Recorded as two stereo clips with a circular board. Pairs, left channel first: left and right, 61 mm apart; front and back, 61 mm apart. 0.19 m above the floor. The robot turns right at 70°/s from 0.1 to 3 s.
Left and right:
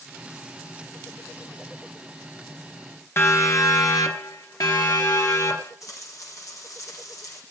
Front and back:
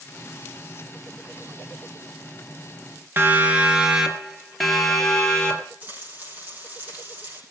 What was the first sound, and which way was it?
A siren, 130° left.